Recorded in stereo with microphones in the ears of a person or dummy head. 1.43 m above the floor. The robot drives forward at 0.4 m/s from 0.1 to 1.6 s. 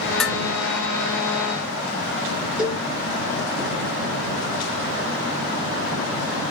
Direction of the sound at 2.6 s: 10° right (ahead or behind).